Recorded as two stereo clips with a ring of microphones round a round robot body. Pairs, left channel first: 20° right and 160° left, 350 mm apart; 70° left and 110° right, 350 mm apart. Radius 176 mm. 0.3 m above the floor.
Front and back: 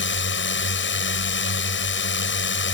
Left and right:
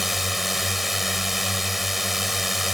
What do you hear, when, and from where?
0.0 s a drone: 25° right